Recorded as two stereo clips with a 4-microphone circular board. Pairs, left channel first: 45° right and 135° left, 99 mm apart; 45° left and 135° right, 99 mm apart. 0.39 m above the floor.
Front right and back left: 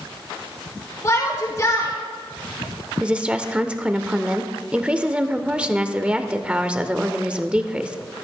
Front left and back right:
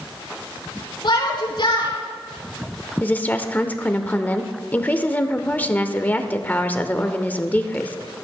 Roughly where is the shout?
Ahead.